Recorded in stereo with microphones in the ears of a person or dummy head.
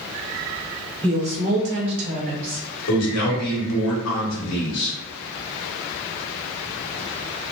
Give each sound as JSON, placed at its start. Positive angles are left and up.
{"t": 1.0, "sound": "a woman speaking", "side_deg": -25, "distance_m": 1.0}
{"t": 2.9, "sound": "a man speaking", "side_deg": 75, "distance_m": 1.2}